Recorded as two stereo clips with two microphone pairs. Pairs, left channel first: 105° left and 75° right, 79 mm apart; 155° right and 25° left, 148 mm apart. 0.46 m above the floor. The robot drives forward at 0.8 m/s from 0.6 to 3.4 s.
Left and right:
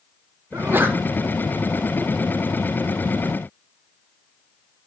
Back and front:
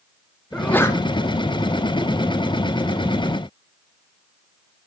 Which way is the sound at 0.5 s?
80° right.